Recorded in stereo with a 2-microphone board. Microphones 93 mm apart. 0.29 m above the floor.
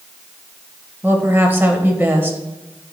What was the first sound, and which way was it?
A woman speaking, 20° right (ahead or behind).